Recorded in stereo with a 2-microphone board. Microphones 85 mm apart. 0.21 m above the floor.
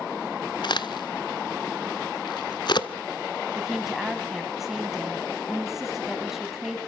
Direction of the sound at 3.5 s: 5° right (ahead or behind).